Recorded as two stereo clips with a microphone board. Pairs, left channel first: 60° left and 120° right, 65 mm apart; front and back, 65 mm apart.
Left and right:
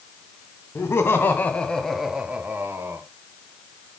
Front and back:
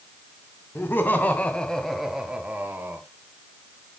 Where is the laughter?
40° left, 2.0 m; by 3.0 s 140° right, 1.9 m.